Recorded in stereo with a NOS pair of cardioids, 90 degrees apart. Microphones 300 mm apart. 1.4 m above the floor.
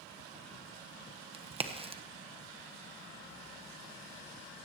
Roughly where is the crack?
Ahead.